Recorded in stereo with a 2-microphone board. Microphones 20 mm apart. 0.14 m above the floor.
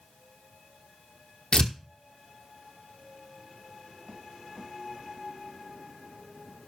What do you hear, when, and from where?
1.5 s tearing paper: 45° left (ahead or behind), 1.2 m